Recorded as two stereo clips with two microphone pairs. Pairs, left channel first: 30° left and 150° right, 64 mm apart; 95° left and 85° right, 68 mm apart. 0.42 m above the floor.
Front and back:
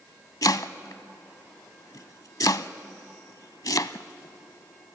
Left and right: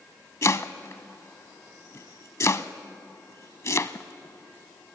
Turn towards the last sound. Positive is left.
turn(degrees=45)